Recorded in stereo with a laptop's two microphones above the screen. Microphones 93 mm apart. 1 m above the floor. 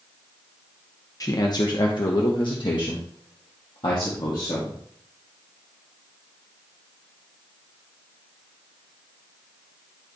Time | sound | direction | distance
1.2 | a man speaking | 40° left (ahead or behind) | 0.9 m